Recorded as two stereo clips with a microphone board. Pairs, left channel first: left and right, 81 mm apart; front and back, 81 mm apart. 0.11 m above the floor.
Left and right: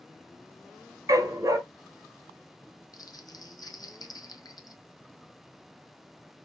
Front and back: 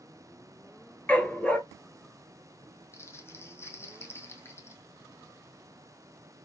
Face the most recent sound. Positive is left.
turn(degrees=55)